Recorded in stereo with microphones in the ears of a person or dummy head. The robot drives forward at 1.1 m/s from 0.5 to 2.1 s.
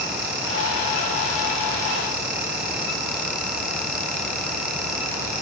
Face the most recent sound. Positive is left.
No sound to turn to.